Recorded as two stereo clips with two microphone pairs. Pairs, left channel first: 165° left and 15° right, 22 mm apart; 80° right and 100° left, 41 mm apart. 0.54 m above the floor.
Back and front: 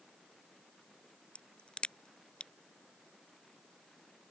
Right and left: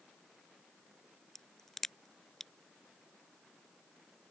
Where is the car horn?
I don't hear a car horn.